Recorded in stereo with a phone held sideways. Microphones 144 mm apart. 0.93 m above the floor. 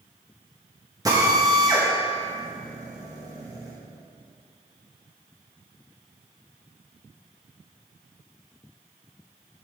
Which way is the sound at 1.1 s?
25° right (ahead or behind).